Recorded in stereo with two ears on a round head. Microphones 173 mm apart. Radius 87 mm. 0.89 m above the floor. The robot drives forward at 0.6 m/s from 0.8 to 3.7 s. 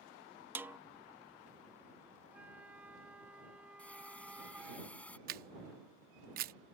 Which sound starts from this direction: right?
A camera shutter, at 5.3 s.